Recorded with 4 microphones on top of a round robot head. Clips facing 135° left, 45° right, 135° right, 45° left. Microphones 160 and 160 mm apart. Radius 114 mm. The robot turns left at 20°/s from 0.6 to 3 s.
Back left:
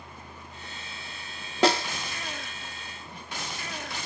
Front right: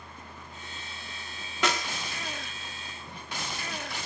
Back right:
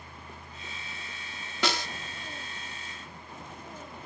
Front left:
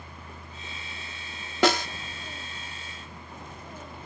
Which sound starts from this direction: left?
A snare drum, at 1.6 s.